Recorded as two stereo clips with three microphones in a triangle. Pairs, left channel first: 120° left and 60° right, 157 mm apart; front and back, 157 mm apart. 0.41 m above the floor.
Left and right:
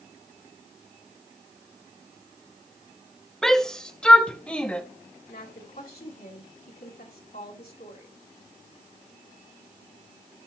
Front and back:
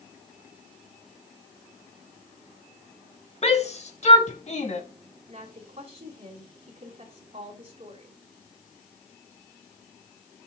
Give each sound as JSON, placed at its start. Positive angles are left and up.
{"t": 3.4, "sound": "a shout", "azimuth_deg": 35, "distance_m": 1.2}
{"t": 5.3, "sound": "a woman speaking", "azimuth_deg": 135, "distance_m": 3.0}